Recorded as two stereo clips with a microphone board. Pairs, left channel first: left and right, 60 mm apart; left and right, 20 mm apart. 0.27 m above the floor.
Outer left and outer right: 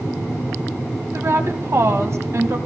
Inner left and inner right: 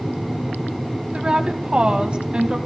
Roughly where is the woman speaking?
Right.